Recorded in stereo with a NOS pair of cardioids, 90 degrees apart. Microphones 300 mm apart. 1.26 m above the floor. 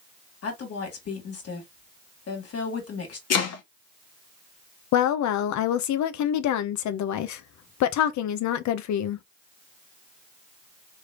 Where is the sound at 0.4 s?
55° left, 2.0 m.